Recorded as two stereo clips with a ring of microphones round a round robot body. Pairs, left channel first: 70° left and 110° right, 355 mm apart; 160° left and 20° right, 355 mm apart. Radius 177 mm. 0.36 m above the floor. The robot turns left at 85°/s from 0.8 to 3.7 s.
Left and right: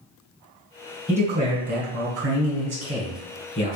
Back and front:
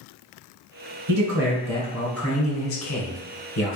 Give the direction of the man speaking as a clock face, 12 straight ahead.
1 o'clock.